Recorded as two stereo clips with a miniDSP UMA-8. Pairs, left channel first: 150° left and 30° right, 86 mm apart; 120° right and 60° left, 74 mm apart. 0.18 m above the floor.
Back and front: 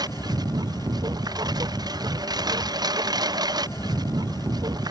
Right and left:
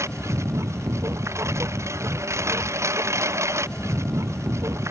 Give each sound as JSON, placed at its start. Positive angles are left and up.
{"t": 0.0, "sound": "a lawn mower", "azimuth_deg": 10}